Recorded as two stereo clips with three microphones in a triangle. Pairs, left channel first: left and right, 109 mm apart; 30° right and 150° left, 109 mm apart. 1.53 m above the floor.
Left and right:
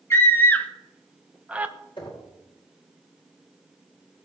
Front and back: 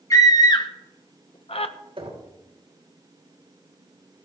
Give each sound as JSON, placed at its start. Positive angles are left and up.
{"t": 0.1, "sound": "a scream", "azimuth_deg": 25, "distance_m": 1.5}
{"t": 2.0, "sound": "knocking", "azimuth_deg": 120, "distance_m": 5.0}